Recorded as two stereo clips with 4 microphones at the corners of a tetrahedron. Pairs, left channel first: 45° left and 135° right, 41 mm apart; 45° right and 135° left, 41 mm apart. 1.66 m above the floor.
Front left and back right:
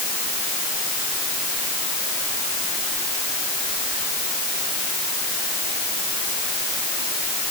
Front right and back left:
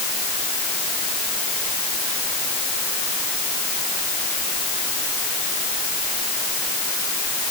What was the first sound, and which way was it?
Only background noise.